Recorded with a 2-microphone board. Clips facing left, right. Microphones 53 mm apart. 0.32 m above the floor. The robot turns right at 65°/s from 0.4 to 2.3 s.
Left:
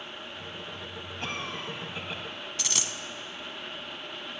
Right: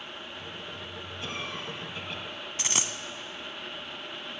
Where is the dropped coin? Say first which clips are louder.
Right 3 dB; 30° right (ahead or behind), 0.6 m.